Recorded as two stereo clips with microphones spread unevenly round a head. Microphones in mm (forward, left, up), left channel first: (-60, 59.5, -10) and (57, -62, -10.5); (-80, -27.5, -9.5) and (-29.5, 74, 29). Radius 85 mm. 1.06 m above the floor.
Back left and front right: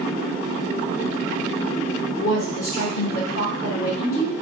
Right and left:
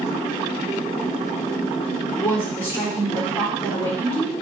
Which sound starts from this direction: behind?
A woman speaking, at 2.2 s.